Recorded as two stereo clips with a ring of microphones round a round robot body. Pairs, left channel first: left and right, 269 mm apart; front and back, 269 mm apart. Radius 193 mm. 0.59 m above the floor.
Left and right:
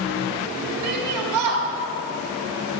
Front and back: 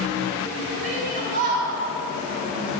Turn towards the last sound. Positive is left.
turn(degrees=-115)